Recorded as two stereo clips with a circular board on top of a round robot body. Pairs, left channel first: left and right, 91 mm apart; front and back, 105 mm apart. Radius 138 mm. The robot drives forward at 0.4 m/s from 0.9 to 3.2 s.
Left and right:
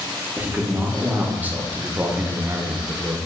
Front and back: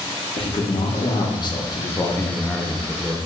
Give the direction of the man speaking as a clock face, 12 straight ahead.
1 o'clock.